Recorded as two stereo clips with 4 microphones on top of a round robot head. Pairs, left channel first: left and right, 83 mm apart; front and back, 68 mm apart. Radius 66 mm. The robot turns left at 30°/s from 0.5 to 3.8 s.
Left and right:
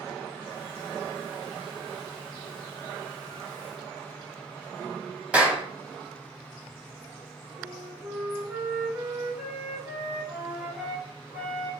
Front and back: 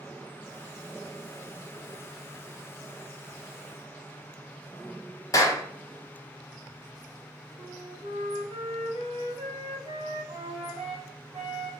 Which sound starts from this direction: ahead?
A clap, at 5.3 s.